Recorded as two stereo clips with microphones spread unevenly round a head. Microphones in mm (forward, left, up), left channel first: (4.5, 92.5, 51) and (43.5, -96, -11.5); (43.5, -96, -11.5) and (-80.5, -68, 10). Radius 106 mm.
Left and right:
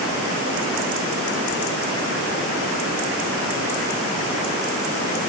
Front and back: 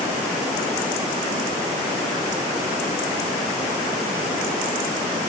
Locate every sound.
Only background noise.